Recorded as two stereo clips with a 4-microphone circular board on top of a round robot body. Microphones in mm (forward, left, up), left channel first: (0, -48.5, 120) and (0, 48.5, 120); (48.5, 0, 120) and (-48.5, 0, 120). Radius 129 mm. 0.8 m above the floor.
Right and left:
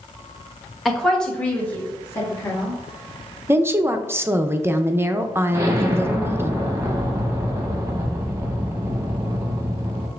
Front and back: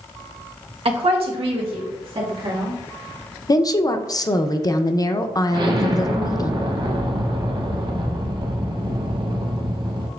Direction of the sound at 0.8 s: Straight behind.